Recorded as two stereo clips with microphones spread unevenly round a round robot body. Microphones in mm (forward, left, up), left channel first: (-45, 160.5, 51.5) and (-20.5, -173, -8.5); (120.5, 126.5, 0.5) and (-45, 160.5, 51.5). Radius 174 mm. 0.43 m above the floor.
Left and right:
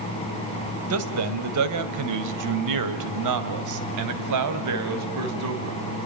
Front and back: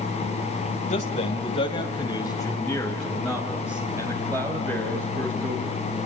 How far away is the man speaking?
About 2.5 m.